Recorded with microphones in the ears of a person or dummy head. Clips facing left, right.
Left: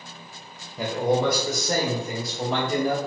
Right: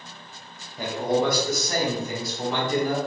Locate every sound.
0.8 s a man speaking: 60° left (ahead or behind), 1.3 m; by 3.0 s 40° left (ahead or behind), 3 m